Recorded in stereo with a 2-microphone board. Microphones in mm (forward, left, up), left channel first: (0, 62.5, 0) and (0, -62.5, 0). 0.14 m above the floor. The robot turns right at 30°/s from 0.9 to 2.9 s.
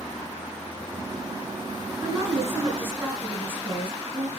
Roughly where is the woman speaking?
Right.